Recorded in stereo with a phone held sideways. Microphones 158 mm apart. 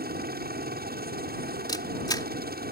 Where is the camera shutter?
25° left (ahead or behind).